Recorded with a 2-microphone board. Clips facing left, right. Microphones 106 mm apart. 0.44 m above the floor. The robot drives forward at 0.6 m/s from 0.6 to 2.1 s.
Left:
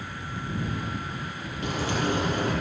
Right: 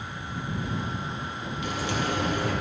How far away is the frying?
About 3 m.